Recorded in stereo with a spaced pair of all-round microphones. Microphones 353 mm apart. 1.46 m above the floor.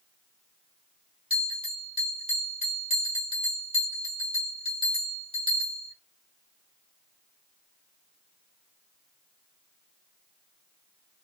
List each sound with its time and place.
1.3 s a bell: 15° right (ahead or behind), 1.6 m